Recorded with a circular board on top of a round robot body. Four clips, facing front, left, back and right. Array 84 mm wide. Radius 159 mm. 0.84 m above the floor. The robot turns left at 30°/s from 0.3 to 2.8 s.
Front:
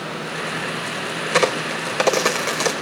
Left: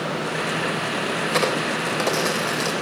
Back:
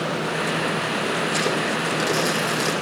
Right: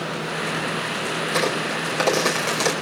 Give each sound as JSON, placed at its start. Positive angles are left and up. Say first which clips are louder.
{"t": 1.3, "sound": "a crack", "louder": "left 1 dB, front 3 dB", "azimuth_deg": 10, "distance_m": 4.5}